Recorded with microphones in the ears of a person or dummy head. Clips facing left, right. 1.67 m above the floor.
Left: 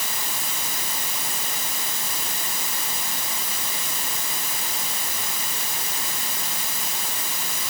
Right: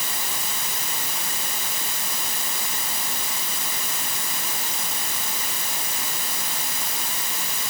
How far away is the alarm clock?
No alarm clock in this recording.